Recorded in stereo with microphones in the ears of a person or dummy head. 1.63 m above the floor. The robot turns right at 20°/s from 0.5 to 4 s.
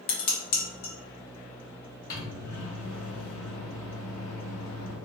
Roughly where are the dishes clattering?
Left.